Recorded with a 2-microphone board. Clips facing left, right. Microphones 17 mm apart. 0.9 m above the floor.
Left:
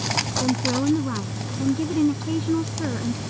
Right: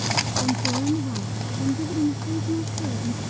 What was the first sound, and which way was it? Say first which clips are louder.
A woman speaking: left 2 dB; 45° left (ahead or behind).